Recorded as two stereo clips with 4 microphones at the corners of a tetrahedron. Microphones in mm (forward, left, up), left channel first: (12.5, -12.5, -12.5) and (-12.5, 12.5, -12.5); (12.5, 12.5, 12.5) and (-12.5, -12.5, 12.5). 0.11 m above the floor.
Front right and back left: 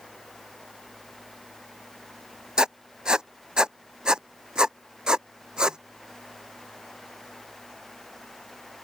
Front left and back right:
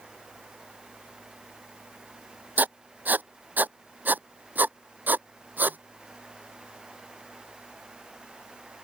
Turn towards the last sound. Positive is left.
turn(degrees=-160)